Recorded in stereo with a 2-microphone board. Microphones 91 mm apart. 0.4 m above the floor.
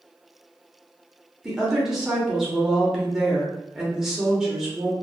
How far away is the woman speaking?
About 0.8 m.